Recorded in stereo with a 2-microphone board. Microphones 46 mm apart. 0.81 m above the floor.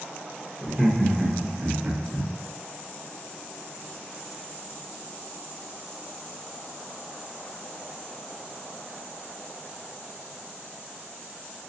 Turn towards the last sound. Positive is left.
turn(degrees=-50)  # may be behind; listen again after turning